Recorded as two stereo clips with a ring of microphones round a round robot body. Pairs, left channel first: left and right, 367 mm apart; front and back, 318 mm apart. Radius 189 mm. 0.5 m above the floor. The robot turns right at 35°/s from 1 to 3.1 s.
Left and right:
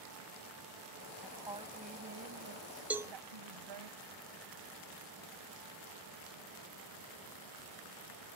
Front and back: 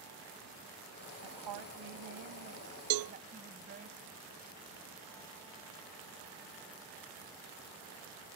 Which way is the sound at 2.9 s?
175° right.